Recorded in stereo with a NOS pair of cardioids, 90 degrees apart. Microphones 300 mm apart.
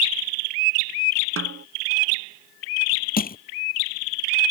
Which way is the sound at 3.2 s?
30° left.